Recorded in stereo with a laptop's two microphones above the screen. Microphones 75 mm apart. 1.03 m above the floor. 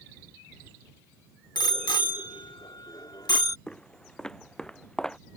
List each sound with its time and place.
1.6 s a bicycle bell: 90° left; by 3.6 s 65° left (ahead or behind)
3.7 s footsteps: 10° left (ahead or behind)